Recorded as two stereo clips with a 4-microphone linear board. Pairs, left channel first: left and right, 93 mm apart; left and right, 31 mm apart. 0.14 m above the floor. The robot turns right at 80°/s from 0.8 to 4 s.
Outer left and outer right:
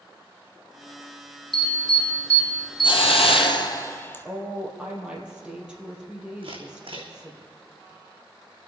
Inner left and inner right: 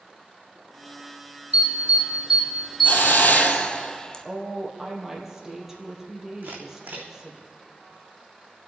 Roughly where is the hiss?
Ahead left.